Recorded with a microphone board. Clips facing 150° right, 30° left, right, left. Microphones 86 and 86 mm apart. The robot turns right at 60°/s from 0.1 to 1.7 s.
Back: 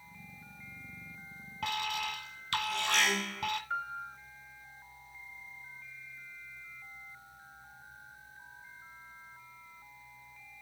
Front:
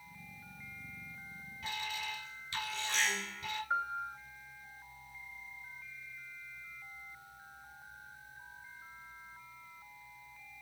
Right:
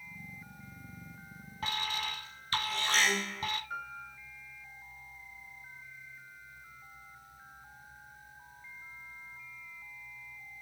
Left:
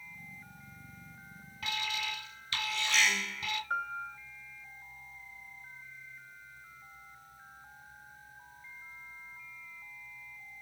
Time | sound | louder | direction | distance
1.6 | an alarm | back 6 dB, right 1 dB | 145° right | 1.6 m
3.7 | a piano | front 2 dB, left 6 dB | 90° left | 1.5 m